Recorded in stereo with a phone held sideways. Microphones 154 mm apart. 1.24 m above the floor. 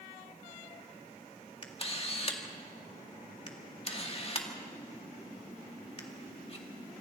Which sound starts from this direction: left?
A camera shutter, at 1.6 s.